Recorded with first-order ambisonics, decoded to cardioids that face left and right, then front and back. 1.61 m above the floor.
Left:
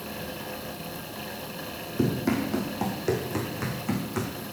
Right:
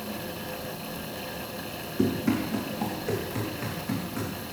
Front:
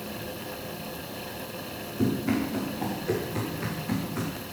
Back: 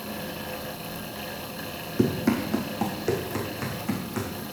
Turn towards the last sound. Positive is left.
turn(degrees=125)